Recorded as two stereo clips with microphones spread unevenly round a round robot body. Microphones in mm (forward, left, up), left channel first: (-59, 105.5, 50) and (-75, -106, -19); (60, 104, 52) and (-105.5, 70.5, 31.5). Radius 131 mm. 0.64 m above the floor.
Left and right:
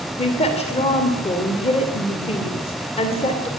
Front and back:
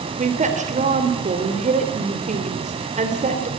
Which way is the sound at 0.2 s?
155° left.